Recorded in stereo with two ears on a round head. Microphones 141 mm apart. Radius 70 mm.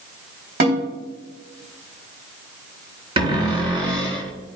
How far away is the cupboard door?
About 3 m.